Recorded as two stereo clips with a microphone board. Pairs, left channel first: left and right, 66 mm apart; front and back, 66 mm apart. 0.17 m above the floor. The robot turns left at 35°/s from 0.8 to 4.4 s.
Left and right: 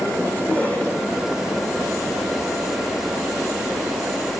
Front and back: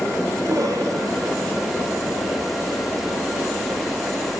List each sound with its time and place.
0.4 s a cough: 155° left, 5 m; by 1.5 s 130° left, 5 m